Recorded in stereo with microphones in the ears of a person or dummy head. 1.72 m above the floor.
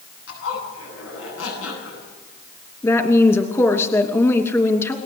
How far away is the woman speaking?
About 2.5 m.